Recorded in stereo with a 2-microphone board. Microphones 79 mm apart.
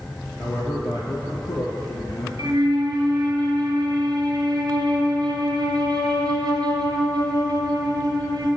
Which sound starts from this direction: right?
A flute, at 2.4 s.